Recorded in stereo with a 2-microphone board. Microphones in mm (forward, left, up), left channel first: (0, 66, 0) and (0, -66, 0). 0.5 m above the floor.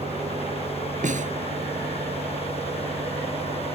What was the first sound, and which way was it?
An engine running, 65° right (ahead or behind).